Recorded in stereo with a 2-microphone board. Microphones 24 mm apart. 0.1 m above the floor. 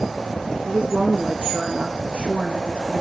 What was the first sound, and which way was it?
A woman speaking, 55° right (ahead or behind).